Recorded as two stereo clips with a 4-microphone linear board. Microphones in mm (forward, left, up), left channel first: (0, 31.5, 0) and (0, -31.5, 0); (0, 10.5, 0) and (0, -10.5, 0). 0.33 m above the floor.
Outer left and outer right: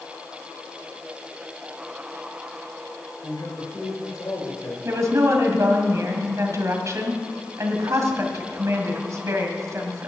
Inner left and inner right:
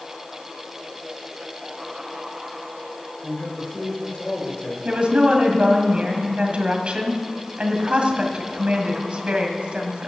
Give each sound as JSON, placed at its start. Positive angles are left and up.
{"t": 3.2, "sound": "a man speaking", "side_deg": 65, "distance_m": 5.0}
{"t": 4.8, "sound": "a woman speaking", "side_deg": -55, "distance_m": 2.0}